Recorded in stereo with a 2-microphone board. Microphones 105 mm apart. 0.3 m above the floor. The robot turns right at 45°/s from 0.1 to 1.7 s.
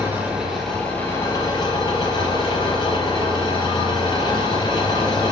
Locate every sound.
0.0 s an engine running: 20° right, 5 m; by 5.3 s 50° left, 5 m